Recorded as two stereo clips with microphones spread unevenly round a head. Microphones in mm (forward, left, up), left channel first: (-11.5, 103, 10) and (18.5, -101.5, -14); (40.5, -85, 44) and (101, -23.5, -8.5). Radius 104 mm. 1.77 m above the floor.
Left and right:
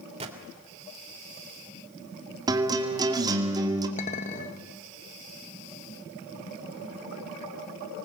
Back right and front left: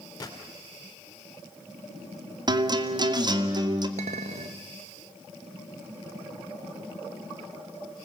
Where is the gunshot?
145° right, 2.5 m.